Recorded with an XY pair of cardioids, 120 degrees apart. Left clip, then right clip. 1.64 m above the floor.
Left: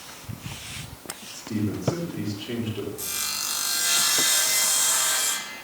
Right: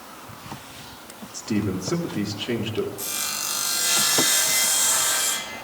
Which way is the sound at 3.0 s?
5° right.